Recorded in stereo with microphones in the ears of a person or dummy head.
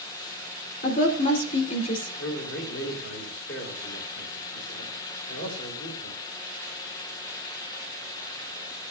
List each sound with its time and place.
0.8 s a woman speaking: 45° left (ahead or behind), 3 m
2.2 s a man speaking: 70° left (ahead or behind), 3 m